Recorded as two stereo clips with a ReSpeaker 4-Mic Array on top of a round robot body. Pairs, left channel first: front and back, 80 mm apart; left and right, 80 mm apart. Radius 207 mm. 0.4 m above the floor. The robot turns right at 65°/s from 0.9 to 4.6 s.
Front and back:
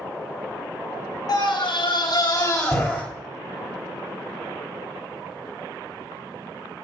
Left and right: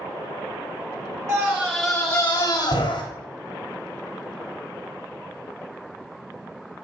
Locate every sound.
1.3 s a scream: 40° right, 3.5 m; by 3.0 s 75° left, 3.5 m